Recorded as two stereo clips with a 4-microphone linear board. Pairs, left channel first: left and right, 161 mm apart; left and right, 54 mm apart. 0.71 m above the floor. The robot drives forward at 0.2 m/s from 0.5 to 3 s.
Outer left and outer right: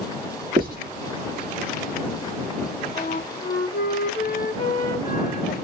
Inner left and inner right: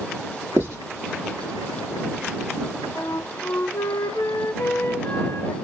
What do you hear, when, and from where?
0.6 s writing: 60° right (ahead or behind), 1.5 m
3.0 s a flute: 70° left (ahead or behind), 0.6 m